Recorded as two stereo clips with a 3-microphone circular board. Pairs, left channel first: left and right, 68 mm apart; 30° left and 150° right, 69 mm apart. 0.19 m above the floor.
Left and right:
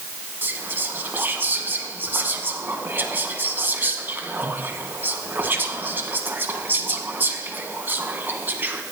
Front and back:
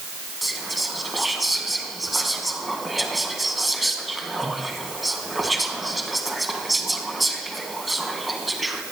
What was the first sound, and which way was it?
Whispering, 60° right.